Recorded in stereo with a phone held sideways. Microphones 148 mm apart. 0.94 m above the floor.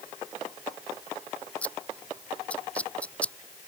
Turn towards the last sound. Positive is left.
turn(degrees=10)  # may be behind; listen again after turning